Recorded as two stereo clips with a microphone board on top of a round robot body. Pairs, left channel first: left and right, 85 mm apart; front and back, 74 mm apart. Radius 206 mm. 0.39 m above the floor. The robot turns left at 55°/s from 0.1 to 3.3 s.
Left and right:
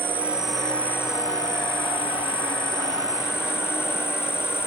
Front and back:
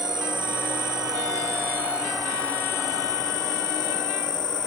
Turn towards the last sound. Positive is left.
turn(degrees=30)